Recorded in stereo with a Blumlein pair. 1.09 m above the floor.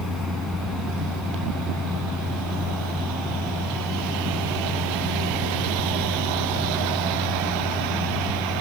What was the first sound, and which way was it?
A fan, 5° left.